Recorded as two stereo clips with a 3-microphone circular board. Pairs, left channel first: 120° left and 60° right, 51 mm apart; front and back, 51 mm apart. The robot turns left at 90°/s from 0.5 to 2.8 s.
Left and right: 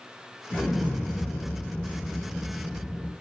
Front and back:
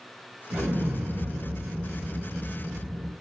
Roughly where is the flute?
I don't hear a flute.